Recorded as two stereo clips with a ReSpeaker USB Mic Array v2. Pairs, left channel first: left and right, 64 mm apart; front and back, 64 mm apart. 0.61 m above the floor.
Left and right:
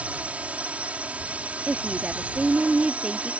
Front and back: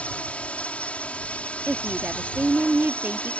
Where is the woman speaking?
145° right.